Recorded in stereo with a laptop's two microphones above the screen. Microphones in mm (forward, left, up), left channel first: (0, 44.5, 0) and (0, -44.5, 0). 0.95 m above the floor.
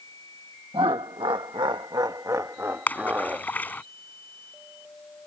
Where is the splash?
20° left (ahead or behind).